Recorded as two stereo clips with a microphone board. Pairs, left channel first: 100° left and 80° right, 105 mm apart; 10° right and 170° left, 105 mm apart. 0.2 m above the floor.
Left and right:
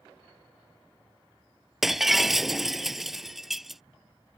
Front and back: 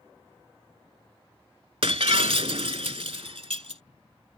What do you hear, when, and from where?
1.8 s breaking glass: 165° right